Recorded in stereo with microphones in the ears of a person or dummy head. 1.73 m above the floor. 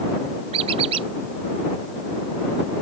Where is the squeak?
35° right (ahead or behind).